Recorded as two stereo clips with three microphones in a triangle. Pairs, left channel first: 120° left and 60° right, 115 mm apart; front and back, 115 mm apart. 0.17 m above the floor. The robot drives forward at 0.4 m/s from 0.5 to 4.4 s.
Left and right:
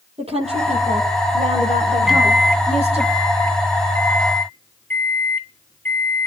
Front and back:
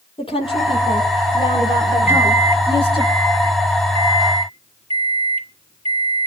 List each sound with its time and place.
0.2 s a woman speaking: 35° right, 6.5 m; by 3.1 s 45° right, 5.5 m
2.1 s a microwave: 145° right, 0.8 m; by 6.3 s 170° right, 1.5 m